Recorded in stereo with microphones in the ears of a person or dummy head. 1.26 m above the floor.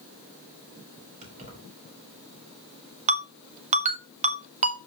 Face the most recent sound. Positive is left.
turn(degrees=-40)  # may be behind; listen again after turning